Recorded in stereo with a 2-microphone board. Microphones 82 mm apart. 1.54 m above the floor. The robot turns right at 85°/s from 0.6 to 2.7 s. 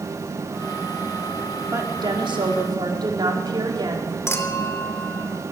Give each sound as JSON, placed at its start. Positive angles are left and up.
{"t": 1.7, "sound": "a woman speaking", "azimuth_deg": -145, "distance_m": 5.0}
{"t": 4.3, "sound": "a clink", "side_deg": 35, "distance_m": 2.5}